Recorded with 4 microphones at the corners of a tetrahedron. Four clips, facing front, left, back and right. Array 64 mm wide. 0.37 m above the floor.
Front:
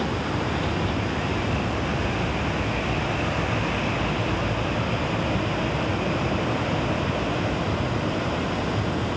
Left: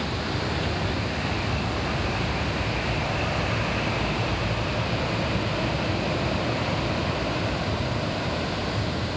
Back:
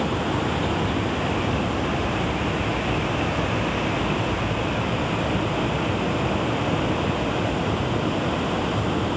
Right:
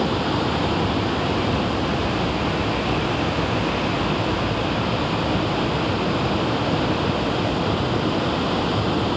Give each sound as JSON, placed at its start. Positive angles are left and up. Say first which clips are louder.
{"t": 0.0, "sound": "running water", "louder": "right 7 dB, back 2 dB", "azimuth_deg": -110}